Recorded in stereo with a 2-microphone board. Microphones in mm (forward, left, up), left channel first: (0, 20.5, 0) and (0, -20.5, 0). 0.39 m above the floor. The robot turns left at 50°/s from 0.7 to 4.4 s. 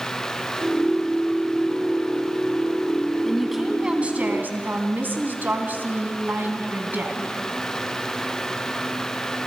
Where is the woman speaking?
5° left, 3 m; by 7.4 s 50° right, 3 m.